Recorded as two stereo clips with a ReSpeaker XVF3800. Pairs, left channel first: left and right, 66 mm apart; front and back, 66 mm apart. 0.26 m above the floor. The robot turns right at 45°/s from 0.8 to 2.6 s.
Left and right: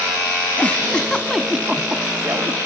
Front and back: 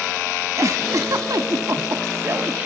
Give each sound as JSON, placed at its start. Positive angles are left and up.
{"t": 0.6, "sound": "a giggle", "azimuth_deg": 155, "distance_m": 0.8}